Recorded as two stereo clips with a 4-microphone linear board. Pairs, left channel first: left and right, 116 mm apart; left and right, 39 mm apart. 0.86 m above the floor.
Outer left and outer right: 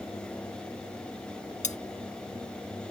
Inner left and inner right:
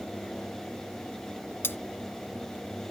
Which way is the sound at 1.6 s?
85° left.